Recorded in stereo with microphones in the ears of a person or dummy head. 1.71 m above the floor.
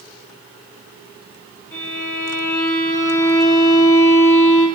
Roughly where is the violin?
Left.